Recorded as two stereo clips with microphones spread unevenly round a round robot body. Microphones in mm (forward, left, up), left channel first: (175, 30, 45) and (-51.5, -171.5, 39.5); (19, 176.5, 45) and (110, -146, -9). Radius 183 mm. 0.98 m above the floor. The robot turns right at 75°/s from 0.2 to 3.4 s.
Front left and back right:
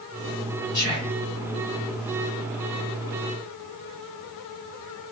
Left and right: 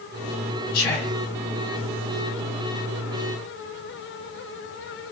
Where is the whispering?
95° left, 1.0 m; by 1.2 s 125° left, 1.0 m.